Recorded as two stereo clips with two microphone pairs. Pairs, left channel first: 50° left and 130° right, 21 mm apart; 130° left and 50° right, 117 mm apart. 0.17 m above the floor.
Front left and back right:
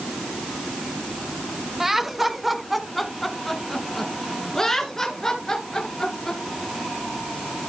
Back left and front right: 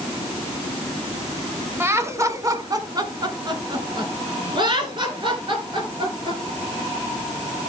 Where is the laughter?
75° right, 1.1 m; by 6.4 s 10° right, 2.5 m.